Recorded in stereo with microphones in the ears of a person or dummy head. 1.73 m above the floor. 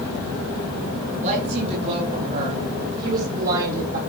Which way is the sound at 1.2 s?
45° right (ahead or behind).